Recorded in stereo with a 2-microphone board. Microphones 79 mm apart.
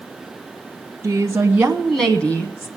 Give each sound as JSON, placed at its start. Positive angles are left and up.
{"t": 1.0, "sound": "a woman speaking", "side_deg": -35, "distance_m": 1.6}